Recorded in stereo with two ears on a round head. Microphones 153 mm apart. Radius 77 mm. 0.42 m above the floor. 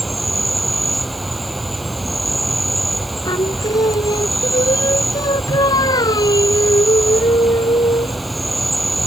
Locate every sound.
0.0 s an insect: centre (ahead or behind)
3.2 s singing: 25° left (ahead or behind)